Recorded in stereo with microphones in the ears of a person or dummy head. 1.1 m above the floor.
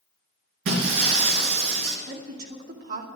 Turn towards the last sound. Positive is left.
turn(degrees=-45)  # may be behind; listen again after turning